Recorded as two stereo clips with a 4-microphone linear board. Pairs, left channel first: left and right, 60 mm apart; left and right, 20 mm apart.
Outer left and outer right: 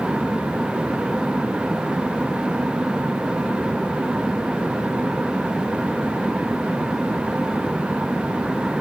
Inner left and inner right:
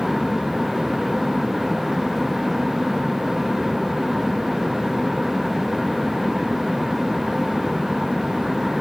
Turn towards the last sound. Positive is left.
No sound to turn to.